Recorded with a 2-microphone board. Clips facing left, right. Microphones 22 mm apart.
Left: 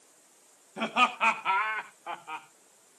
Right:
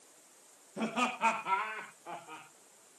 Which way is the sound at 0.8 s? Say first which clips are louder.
Left 7 dB; 40° left (ahead or behind).